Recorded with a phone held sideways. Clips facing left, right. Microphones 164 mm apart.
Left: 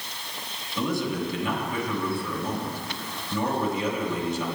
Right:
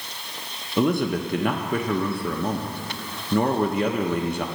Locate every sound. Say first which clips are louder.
0.8 s a man speaking: right 5 dB; 60° right (ahead or behind), 1.0 m